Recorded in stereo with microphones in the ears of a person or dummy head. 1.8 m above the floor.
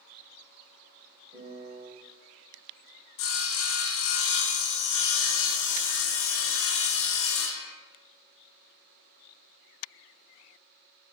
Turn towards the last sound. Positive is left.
turn(degrees=70)  # may be behind; listen again after turning